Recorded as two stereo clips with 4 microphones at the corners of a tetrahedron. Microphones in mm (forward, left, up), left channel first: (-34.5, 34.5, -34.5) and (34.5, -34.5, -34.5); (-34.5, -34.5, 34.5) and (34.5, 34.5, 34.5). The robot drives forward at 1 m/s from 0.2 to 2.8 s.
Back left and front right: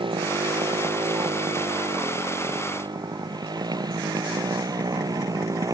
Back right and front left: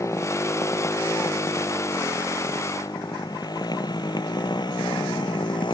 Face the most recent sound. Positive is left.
turn(degrees=-100)